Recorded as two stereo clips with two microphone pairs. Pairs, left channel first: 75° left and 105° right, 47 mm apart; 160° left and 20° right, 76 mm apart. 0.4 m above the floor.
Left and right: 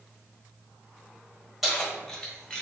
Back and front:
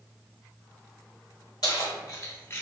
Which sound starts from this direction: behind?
Keys jangling, at 1.6 s.